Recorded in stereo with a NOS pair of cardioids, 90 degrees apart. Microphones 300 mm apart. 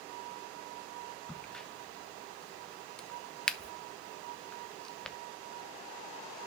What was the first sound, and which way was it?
A crack, straight ahead.